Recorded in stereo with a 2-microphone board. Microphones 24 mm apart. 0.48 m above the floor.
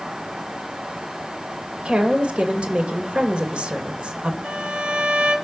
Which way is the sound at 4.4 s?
60° right (ahead or behind).